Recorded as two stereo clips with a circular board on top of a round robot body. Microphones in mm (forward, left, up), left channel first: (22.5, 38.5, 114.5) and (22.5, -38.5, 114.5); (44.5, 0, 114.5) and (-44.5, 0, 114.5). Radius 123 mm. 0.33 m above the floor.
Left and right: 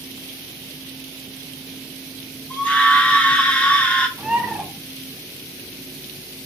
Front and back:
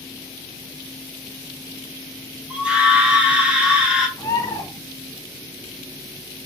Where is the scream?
130° left, 0.9 m.